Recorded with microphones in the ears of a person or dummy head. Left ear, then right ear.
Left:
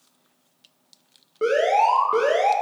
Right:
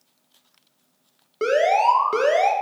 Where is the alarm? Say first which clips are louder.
Right 1 dB; 75° right (ahead or behind), 1.5 m.